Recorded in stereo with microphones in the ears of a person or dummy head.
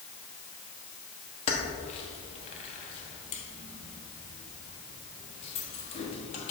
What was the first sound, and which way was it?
Keys jangling, 35° left (ahead or behind).